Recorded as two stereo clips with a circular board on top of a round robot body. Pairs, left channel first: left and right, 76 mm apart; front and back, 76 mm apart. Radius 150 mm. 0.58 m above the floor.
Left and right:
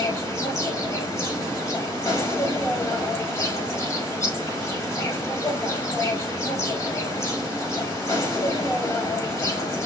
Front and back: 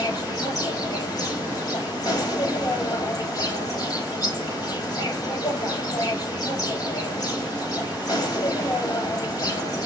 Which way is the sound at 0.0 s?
45° left.